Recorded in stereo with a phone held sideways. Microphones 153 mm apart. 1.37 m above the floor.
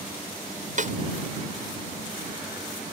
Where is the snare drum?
55° right (ahead or behind).